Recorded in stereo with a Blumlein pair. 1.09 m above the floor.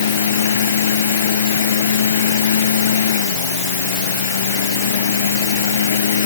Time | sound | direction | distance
0.0 | a fan | 65° left | ?